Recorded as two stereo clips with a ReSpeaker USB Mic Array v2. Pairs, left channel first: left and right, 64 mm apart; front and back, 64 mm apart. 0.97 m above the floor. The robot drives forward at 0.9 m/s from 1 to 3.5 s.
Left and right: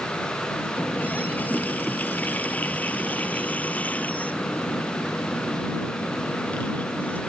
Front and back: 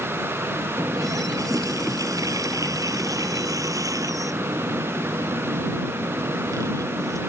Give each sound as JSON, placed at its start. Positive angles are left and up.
{"t": 0.8, "sound": "a running tap", "azimuth_deg": 155}